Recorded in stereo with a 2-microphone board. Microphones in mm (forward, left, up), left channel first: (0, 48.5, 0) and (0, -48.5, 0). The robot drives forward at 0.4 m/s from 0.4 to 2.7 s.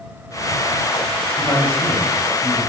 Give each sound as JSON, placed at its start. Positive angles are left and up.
{"t": 1.4, "sound": "a man speaking", "side_deg": 20, "distance_m": 3.5}